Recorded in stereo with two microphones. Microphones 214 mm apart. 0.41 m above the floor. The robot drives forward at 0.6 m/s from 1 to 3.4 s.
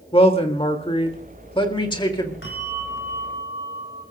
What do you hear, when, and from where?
0.1 s a man speaking: 25° left (ahead or behind), 1.5 m; by 2.3 s 20° left (ahead or behind), 1.9 m
2.4 s a bell: 65° left (ahead or behind), 5 m; by 4.0 s 60° left (ahead or behind), 5.5 m